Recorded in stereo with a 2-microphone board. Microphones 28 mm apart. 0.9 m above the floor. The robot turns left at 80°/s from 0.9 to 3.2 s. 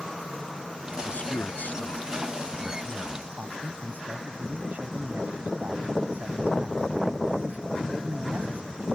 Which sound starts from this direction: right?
A man speaking, at 3.3 s.